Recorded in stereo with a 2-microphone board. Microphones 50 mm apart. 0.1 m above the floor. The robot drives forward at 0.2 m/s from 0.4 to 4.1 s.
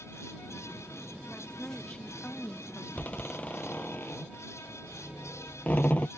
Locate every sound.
1.3 s a woman speaking: 20° left (ahead or behind)
3.0 s a door slam: 25° left (ahead or behind); by 6.1 s 30° left (ahead or behind)